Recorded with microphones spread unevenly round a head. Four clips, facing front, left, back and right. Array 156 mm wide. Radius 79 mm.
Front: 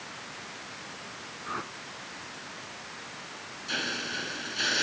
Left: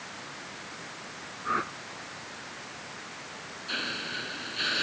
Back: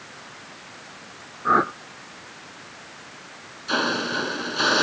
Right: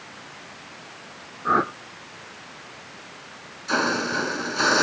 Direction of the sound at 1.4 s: 145° right.